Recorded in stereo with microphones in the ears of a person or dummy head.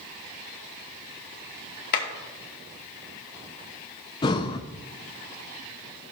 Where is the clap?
45° left (ahead or behind), 2 m.